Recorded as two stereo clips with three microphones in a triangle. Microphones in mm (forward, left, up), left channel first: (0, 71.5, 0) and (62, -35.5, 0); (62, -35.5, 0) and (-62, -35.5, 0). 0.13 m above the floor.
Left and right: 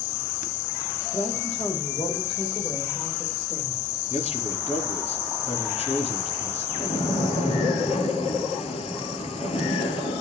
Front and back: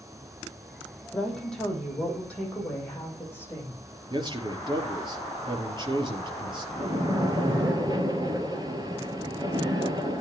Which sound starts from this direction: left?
A woman speaking, at 1.1 s.